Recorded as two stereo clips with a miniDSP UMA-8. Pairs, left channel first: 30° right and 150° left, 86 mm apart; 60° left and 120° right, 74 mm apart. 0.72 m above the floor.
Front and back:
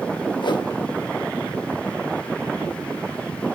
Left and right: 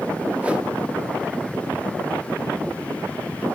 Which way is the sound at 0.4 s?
50° right.